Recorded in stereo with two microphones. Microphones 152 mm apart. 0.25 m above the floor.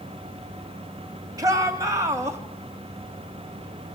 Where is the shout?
25° right (ahead or behind), 1.6 m; by 2.4 s 20° right (ahead or behind), 1.5 m.